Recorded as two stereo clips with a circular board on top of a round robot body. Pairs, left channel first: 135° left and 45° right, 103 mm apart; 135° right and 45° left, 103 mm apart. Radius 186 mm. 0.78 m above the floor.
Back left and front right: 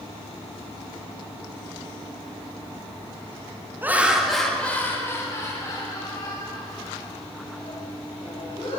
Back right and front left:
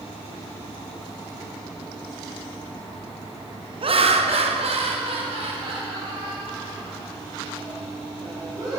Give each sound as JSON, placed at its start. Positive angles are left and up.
{"t": 3.8, "sound": "laughter", "azimuth_deg": 25, "distance_m": 1.6}